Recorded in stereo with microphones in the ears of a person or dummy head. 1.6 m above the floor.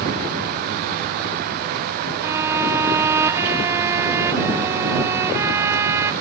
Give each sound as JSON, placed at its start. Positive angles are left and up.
{"t": 2.2, "sound": "a violin", "side_deg": -15}